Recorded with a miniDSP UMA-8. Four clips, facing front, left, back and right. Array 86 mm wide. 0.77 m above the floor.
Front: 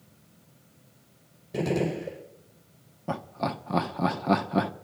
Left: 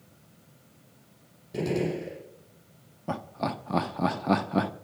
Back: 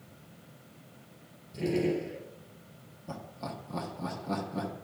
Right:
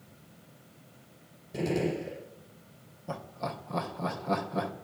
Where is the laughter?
40° left, 1.1 m.